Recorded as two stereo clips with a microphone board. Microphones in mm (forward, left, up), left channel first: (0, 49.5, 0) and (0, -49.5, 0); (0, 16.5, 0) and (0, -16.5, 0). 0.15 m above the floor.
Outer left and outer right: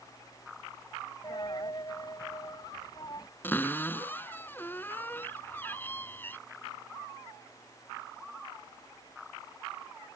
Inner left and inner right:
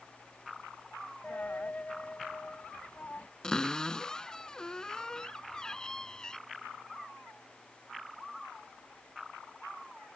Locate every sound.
1.2 s a dropped coin: 45° left (ahead or behind)
3.4 s a cupboard door: 20° left (ahead or behind)